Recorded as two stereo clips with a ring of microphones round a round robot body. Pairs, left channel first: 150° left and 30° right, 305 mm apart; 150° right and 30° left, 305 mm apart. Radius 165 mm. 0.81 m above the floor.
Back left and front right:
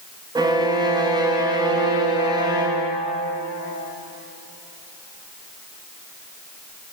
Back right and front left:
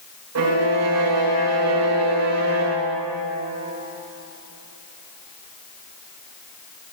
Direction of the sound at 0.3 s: 45° left.